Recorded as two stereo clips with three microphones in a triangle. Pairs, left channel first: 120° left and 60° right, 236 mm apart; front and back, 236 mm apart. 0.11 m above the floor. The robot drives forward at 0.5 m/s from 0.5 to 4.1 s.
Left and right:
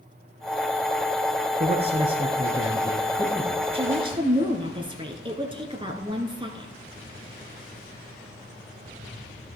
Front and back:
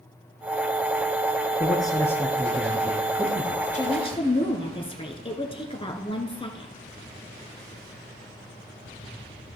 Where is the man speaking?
45° right, 1.2 m; by 3.6 s 140° right, 1.3 m.